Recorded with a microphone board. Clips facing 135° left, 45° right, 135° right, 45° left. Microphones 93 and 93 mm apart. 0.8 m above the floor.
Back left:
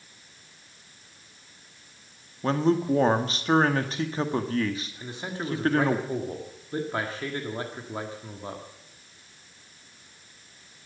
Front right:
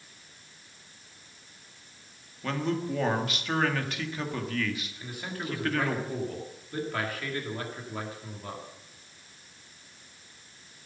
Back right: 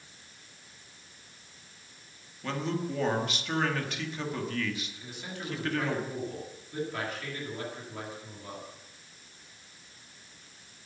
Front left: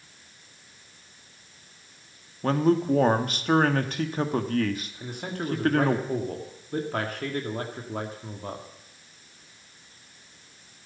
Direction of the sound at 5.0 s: 75° left.